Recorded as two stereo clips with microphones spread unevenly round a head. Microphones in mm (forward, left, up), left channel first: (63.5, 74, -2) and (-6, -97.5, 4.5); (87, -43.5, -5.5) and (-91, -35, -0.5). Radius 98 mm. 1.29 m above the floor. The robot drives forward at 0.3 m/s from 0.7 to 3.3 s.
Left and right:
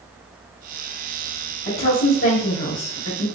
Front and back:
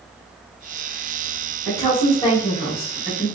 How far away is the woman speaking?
About 1.5 m.